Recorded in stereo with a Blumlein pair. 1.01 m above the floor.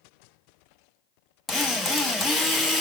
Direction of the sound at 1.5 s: 5° left.